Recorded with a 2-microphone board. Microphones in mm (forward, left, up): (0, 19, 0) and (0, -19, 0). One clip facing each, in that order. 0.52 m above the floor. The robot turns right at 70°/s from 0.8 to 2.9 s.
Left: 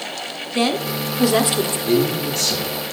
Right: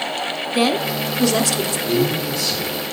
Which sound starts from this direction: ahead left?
A man speaking, at 1.9 s.